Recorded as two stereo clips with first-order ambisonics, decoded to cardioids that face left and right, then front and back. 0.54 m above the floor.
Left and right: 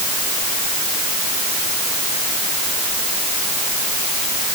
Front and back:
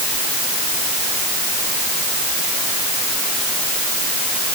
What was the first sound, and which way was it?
Only background noise.